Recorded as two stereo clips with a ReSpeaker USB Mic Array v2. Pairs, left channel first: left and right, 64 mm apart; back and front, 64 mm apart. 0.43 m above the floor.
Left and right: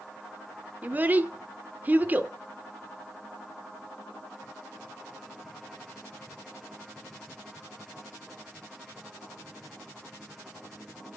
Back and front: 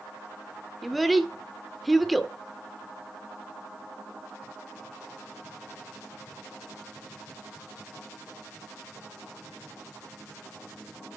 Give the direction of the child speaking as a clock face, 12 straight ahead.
3 o'clock.